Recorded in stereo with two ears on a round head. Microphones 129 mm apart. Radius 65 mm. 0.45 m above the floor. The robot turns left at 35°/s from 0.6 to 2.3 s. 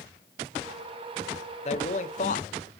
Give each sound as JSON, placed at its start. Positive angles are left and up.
{"t": 1.6, "sound": "a man speaking", "side_deg": 50, "distance_m": 1.3}